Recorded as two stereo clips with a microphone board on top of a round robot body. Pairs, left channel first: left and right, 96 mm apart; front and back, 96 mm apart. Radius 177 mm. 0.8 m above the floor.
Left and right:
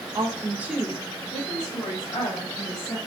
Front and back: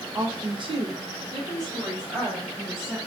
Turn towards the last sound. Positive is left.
turn(degrees=105)